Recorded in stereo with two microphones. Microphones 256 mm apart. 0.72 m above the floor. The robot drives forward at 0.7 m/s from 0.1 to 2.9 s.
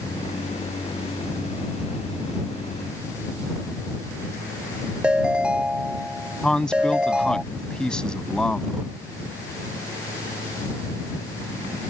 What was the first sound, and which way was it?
A ringtone, 5° right (ahead or behind).